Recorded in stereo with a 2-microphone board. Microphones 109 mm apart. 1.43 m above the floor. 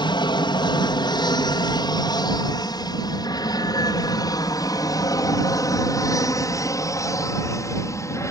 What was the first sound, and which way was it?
An aircraft, 45° left (ahead or behind).